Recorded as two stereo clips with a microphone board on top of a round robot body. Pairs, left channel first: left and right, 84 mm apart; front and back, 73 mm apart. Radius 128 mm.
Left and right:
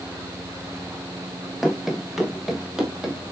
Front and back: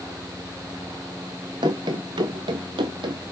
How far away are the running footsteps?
About 0.6 m.